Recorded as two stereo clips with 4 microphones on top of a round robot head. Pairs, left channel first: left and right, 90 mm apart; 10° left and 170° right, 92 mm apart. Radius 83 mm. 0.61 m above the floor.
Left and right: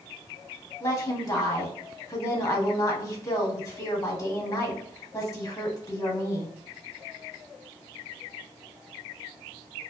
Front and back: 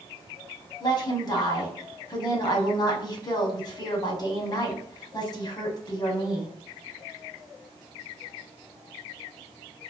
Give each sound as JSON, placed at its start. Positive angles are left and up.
{"t": 0.8, "sound": "a woman speaking", "azimuth_deg": 40, "distance_m": 1.4}